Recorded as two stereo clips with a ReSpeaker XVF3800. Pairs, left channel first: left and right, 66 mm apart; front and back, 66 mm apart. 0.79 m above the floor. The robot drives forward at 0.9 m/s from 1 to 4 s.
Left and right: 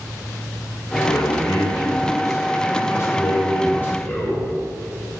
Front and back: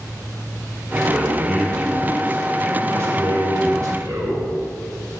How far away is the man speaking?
About 1.8 m.